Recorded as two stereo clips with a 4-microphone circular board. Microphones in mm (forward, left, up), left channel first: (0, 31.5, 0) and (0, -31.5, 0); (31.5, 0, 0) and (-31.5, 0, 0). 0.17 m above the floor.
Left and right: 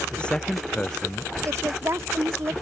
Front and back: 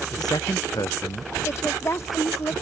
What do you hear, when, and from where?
0.1 s a man speaking: 15° left
1.4 s a woman speaking: 45° right